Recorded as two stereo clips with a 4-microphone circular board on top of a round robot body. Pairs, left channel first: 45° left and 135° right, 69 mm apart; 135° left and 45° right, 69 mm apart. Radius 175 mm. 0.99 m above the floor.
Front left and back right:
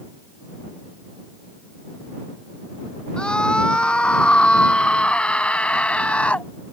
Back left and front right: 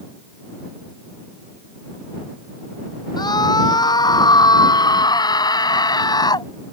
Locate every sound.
3.2 s a scream: 120° left